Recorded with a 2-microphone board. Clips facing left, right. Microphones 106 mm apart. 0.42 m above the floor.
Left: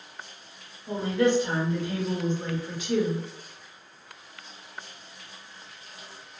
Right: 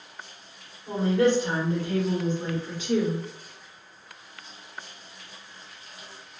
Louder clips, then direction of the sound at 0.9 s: Right 2 dB; 45° right (ahead or behind).